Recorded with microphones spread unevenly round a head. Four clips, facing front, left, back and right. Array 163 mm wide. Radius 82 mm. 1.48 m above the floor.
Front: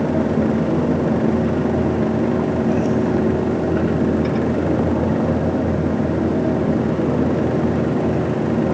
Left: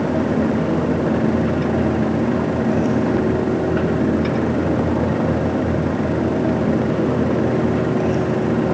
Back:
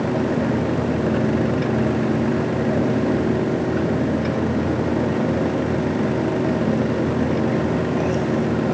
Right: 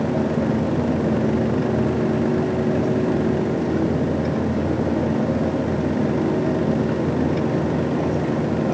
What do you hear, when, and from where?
Only background noise.